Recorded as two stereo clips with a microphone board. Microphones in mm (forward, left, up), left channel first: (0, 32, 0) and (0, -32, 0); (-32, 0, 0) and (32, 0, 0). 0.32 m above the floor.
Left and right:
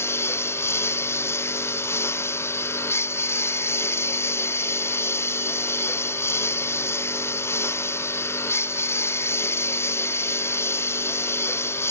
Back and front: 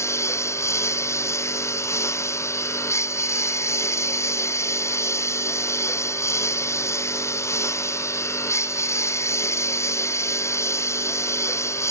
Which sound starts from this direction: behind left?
A lawn mower, at 0.0 s.